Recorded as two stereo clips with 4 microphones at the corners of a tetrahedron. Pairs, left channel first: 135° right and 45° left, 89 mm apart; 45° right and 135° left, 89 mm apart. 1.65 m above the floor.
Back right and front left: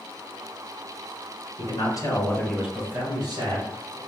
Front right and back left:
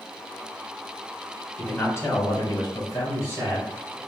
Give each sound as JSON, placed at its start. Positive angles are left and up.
{"t": 1.6, "sound": "a man speaking", "azimuth_deg": -115, "distance_m": 1.2}